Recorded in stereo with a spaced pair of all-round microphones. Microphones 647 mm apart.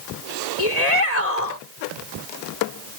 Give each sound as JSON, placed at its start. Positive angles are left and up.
{"t": 0.6, "sound": "a shout", "side_deg": 80}